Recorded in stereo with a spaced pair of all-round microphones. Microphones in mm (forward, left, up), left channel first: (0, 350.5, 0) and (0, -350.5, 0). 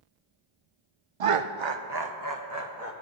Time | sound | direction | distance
1.2 | laughter | 55° right (ahead or behind) | 0.6 m